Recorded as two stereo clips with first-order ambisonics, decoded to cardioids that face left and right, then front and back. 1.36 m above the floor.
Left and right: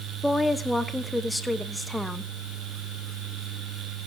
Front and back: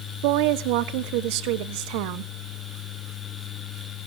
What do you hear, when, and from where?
0.2 s a woman speaking: 175° left, 0.9 m